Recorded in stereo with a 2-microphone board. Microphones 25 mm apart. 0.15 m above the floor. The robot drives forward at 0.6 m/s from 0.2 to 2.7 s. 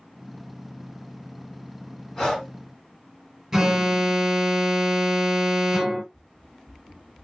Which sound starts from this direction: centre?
An alarm, at 3.5 s.